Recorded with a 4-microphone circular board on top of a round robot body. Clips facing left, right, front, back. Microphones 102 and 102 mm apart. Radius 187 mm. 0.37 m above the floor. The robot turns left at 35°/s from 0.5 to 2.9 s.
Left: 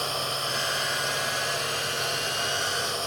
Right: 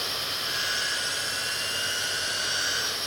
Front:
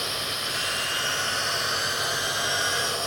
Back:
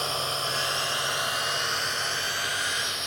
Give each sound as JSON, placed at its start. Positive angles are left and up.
{"t": 0.0, "sound": "a drone", "azimuth_deg": 130}